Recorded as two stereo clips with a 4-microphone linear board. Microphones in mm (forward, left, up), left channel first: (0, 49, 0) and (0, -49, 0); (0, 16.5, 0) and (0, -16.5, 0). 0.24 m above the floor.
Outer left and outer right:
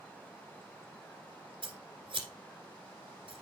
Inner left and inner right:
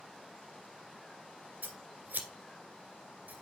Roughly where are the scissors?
Right.